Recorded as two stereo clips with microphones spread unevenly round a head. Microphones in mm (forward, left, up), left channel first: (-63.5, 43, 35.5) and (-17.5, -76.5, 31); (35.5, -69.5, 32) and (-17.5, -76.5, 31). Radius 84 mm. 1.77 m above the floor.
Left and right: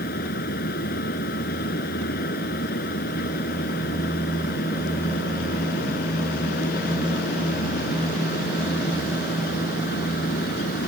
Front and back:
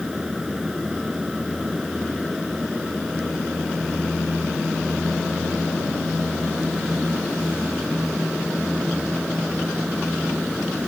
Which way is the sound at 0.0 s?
100° left.